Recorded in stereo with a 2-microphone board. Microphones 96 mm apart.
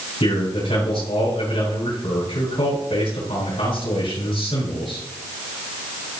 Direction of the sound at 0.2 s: 80° left.